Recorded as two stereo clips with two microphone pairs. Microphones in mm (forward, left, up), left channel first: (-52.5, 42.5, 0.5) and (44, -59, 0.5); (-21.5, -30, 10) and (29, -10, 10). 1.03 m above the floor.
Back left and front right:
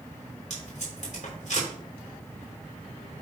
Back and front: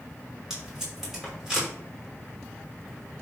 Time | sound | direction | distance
0.5 | tape being pulled | 105° left | 6 m